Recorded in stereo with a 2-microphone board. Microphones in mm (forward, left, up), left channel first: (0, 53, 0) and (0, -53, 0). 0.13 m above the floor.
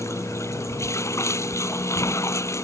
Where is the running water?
25° left (ahead or behind).